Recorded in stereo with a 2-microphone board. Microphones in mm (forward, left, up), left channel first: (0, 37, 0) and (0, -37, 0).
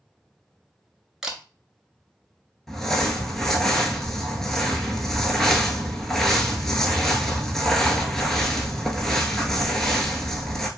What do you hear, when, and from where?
1.2 s a camera shutter: 5° right (ahead or behind), 0.6 m
2.7 s crumpling: 5° left (ahead or behind), 0.6 m